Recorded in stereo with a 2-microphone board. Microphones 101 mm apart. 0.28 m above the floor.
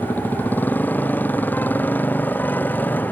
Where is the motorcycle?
15° left (ahead or behind).